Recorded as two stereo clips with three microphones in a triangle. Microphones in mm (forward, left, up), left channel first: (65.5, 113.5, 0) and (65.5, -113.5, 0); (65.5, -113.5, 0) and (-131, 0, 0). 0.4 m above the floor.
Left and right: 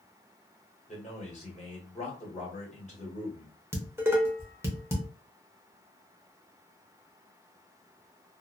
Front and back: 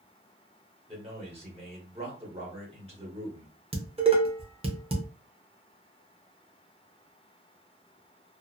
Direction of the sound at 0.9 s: 115° left.